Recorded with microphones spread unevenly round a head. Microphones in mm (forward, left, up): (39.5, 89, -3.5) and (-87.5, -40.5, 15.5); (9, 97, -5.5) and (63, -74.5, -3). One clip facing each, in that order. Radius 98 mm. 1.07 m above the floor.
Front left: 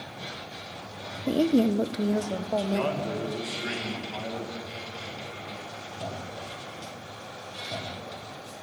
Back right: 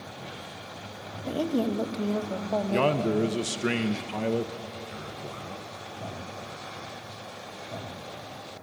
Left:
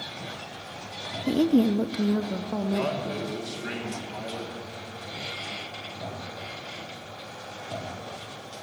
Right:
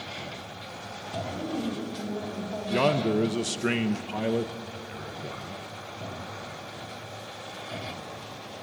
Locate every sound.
1.3 s a woman speaking: 105° left, 0.9 m; by 3.0 s 130° left, 1.7 m
2.7 s a man speaking: 100° right, 1.0 m